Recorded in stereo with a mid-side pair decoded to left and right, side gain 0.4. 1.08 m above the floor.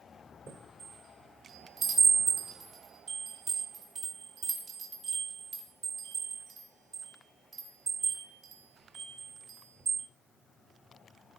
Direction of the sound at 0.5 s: 50° right.